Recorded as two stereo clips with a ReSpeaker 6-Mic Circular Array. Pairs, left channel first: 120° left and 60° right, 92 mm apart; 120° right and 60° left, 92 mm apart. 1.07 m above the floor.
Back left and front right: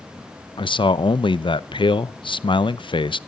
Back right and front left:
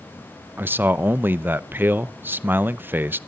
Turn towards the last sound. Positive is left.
turn(degrees=125)